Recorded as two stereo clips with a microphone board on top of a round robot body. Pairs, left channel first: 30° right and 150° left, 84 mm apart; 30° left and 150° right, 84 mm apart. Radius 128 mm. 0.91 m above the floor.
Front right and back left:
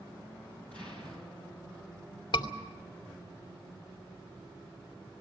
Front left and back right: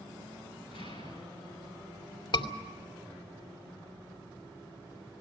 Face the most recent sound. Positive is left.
turn(degrees=0)